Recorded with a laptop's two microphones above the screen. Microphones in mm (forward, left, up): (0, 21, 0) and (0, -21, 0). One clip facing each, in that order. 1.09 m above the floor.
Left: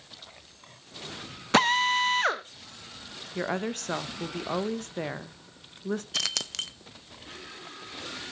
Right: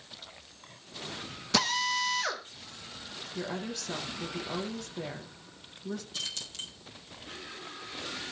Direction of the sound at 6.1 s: 85° left.